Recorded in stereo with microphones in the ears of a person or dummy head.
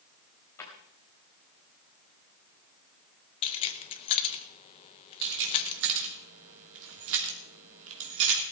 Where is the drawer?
10° left (ahead or behind), 3.5 m.